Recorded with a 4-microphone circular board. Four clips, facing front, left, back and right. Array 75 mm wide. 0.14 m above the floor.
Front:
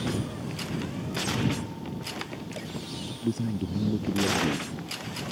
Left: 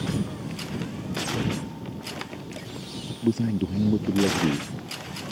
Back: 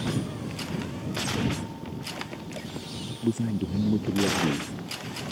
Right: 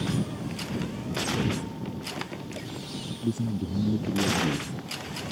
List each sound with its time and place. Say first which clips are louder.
0.1 s a cupboard door: even, back 1 dB; 95° left
3.1 s a man speaking: left 5 dB, back 3 dB; 110° left